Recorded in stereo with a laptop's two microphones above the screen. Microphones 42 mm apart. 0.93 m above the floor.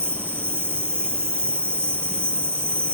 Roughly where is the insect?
Right.